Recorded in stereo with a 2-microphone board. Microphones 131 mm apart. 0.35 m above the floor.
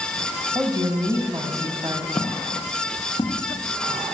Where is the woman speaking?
30° right (ahead or behind), 2 m.